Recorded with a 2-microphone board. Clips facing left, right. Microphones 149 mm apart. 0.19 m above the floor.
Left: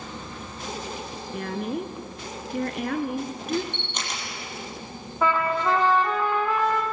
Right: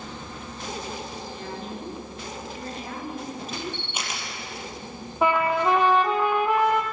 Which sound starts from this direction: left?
A woman speaking, at 1.3 s.